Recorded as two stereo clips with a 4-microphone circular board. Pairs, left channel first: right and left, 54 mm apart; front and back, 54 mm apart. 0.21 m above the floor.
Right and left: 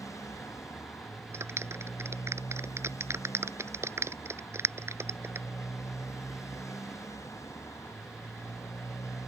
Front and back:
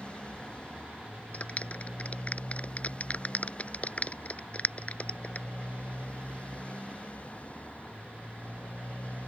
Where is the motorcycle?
70° right; by 9.3 s 65° right.